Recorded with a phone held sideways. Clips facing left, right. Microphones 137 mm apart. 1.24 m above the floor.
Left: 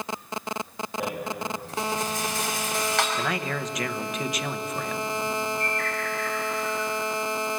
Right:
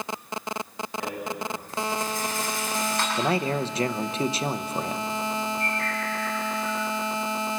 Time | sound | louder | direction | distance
1.0 | a rattle | left 2 dB | 75° left (ahead or behind) | 5 m
3.2 | a man speaking | right 4 dB | 30° right (ahead or behind) | 0.9 m
5.6 | a bird | even | 90° left | 7 m